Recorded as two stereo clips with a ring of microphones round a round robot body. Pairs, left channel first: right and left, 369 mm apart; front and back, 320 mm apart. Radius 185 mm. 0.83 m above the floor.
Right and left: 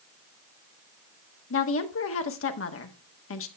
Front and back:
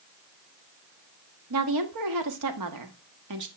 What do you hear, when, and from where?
1.5 s a woman speaking: 145° right, 1.4 m